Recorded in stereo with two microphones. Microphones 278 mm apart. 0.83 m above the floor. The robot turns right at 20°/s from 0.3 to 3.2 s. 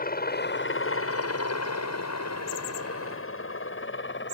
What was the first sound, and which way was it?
A helicopter, 30° left (ahead or behind).